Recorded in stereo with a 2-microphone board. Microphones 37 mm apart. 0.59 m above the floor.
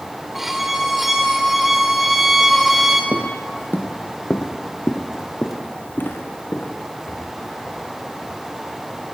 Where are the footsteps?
60° left (ahead or behind), 1.1 m; by 8.3 s 65° left (ahead or behind), 4.5 m.